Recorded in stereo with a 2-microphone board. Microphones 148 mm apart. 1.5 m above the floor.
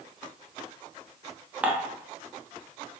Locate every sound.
1.6 s dishes clattering: 10° right (ahead or behind), 0.5 m